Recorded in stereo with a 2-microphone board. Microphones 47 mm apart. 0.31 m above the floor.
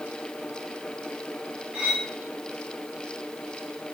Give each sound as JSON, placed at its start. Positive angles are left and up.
{"t": 1.7, "sound": "cutlery clinking", "side_deg": -15, "distance_m": 2.0}